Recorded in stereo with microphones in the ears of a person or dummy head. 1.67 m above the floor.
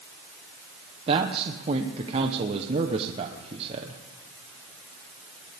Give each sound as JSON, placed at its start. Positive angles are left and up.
{"t": 1.1, "sound": "a man speaking", "side_deg": -35, "distance_m": 1.1}